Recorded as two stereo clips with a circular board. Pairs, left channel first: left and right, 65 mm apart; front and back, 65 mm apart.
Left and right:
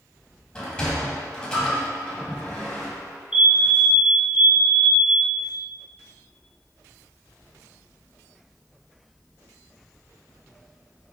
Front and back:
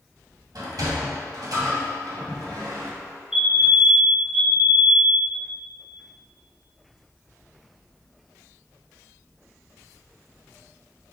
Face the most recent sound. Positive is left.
turn(degrees=-125)